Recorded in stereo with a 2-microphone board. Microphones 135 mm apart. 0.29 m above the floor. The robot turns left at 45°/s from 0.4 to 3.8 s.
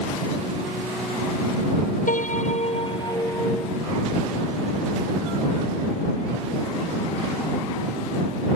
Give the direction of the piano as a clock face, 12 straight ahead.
9 o'clock.